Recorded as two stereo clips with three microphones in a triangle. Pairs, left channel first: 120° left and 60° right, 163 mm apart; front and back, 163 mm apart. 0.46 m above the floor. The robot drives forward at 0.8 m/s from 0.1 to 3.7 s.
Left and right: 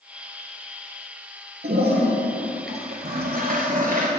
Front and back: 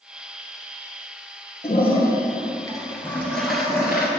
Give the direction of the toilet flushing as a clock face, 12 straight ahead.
2 o'clock.